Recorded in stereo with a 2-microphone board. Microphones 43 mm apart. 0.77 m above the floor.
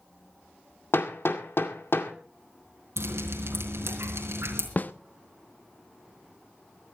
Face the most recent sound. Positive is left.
turn(degrees=45)  # may be behind; listen again after turning